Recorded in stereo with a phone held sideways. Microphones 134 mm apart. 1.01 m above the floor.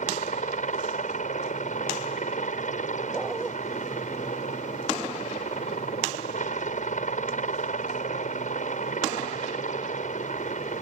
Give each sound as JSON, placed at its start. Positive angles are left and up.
{"t": 0.0, "sound": "a helicopter", "side_deg": 70}
{"t": 3.1, "sound": "a dog barking", "side_deg": 0}